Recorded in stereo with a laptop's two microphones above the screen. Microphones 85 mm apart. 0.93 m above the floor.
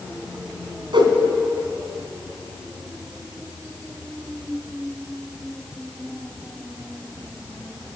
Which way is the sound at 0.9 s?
70° right (ahead or behind).